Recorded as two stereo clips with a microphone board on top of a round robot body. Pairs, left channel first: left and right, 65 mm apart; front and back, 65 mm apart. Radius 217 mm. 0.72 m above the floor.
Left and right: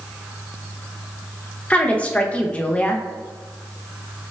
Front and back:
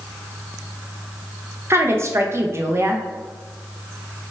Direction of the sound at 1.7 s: 155° left.